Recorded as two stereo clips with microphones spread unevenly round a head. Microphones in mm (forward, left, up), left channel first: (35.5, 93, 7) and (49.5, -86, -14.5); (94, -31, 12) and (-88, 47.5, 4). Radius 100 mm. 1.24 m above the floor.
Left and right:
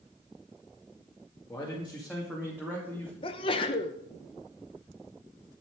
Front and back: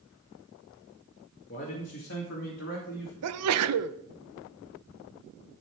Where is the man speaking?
20° left, 2 m; by 3.1 s 15° right, 3 m.